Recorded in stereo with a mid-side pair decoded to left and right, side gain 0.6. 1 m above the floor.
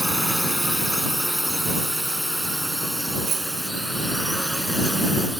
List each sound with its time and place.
0.0 s a drone: 5° right
3.3 s a bicycle bell: 40° right